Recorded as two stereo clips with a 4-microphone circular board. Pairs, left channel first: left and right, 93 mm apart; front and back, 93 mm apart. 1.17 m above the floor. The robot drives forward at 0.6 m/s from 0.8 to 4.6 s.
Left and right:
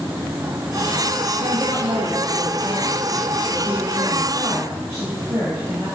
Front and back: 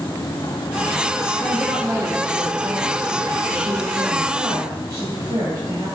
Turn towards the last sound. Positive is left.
turn(degrees=-160)